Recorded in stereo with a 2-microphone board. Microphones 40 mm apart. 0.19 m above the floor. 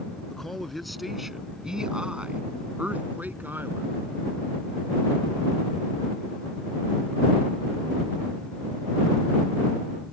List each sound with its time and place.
0.3 s a man speaking: 10° left (ahead or behind); by 3.9 s 55° right (ahead or behind)